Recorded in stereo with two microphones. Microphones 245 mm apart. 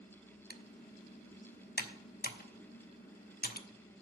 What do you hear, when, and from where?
0.5 s typing on a keyboard: 40° left (ahead or behind), 0.8 m